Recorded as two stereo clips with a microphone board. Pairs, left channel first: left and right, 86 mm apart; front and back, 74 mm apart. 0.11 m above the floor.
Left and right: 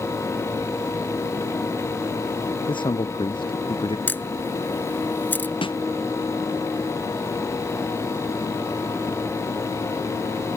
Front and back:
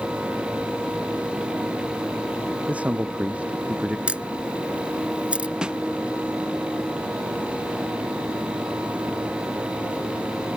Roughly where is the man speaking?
Left.